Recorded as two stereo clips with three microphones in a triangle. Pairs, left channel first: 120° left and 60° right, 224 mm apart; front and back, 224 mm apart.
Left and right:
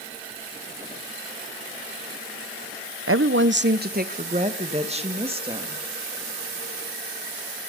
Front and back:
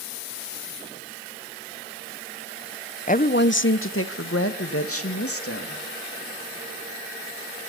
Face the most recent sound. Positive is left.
turn(degrees=10)